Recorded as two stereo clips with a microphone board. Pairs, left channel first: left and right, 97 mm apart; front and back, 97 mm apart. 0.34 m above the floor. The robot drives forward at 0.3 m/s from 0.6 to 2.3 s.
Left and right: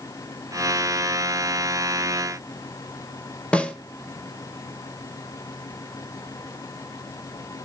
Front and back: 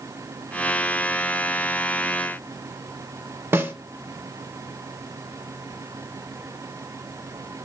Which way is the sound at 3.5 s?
155° left.